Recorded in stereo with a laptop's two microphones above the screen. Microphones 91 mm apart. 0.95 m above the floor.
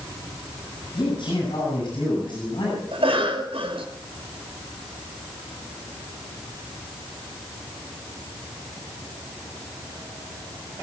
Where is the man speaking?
60° left (ahead or behind), 9 m.